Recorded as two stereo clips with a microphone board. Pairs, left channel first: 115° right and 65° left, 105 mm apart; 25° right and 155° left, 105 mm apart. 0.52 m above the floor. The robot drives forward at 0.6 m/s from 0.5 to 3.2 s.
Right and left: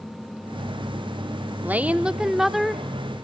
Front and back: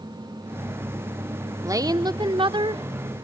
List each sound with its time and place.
1.6 s a woman speaking: 130° left, 0.9 m; by 2.9 s 160° left, 1.4 m